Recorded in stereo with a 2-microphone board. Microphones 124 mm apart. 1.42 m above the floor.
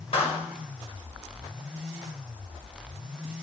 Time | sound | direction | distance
0.1 | a clap | 50° left (ahead or behind) | 5.5 m